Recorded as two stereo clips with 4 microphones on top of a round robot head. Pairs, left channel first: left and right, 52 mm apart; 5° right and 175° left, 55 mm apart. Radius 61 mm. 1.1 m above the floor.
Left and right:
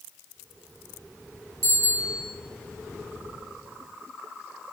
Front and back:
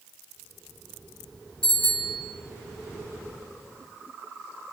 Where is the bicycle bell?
85° right, 2.5 m.